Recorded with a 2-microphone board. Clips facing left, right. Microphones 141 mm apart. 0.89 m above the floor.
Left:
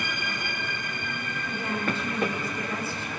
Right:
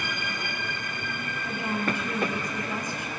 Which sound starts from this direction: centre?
A woman speaking, at 1.4 s.